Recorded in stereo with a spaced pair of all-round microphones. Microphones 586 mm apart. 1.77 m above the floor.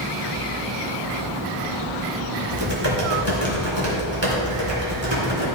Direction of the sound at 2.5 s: 45° right (ahead or behind).